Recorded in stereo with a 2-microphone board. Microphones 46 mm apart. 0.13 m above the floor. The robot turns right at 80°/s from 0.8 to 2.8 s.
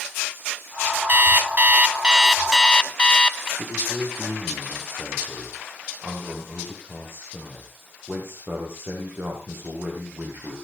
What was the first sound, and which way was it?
An alarm clock, 100° right.